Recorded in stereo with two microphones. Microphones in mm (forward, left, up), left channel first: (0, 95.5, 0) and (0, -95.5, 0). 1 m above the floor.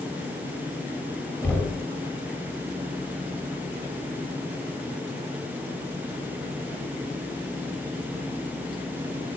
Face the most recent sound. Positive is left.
turn(degrees=10)  # may be behind; listen again after turning